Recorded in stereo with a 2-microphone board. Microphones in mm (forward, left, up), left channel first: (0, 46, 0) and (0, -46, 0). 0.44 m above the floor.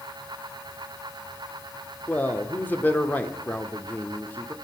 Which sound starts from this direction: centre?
A man speaking, at 2.1 s.